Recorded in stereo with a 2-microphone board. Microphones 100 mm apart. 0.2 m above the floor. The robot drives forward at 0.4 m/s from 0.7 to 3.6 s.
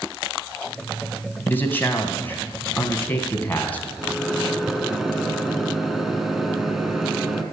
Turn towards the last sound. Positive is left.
turn(degrees=0)  # may be behind; listen again after turning